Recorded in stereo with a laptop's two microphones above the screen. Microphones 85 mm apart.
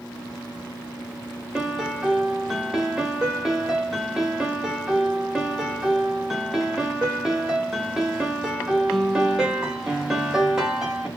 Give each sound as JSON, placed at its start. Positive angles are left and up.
{"t": 1.6, "sound": "a piano", "side_deg": -5, "distance_m": 0.9}